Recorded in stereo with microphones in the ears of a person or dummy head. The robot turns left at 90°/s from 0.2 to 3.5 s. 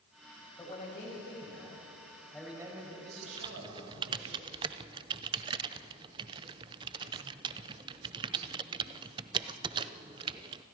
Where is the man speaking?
170° left, 7.5 m; by 4.4 s 95° right, 7.5 m.